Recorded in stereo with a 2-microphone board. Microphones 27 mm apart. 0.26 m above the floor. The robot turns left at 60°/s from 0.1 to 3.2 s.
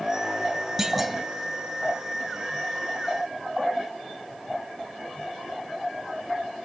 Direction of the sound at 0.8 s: 10° right (ahead or behind).